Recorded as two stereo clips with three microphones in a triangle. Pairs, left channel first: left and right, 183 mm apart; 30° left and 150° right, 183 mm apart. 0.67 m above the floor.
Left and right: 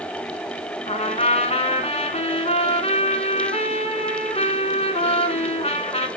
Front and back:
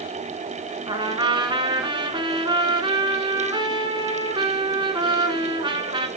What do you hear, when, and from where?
0.9 s a trumpet: 145° left, 1.3 m